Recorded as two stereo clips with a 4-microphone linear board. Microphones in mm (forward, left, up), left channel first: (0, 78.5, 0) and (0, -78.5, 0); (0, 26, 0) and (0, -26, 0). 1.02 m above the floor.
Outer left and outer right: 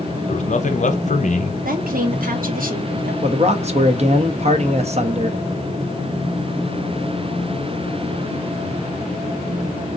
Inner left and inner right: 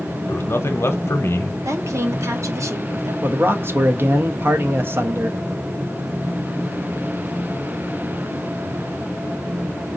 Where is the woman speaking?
65° right (ahead or behind), 1.0 m.